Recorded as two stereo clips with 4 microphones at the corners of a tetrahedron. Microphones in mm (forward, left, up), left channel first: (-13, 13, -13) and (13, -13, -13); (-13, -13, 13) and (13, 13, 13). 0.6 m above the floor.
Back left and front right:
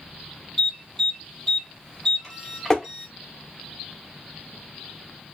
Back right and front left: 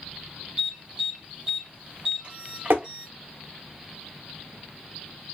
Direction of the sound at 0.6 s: 65° left.